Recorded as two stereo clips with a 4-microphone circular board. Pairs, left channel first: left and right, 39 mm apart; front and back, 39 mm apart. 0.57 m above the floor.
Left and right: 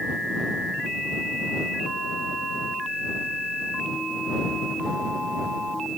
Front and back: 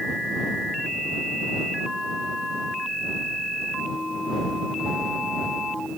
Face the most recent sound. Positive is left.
No sound to turn to.